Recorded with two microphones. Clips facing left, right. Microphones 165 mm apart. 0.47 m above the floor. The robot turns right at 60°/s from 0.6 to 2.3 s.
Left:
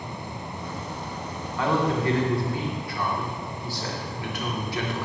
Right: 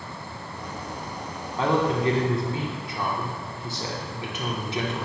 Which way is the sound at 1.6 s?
25° right (ahead or behind).